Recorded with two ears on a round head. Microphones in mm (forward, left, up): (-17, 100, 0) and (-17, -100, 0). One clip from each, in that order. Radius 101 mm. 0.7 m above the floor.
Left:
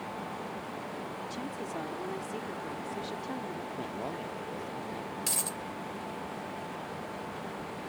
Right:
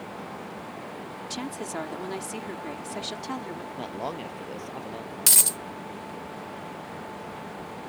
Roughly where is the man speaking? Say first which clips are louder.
Right 7 dB; right.